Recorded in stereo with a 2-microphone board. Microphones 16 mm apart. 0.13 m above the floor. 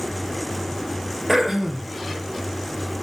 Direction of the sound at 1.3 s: 10° right (ahead or behind).